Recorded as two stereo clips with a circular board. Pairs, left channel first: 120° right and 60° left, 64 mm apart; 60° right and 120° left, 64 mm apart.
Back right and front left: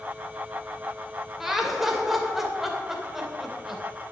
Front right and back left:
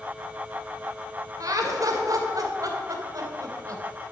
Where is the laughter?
145° left, 2.5 m.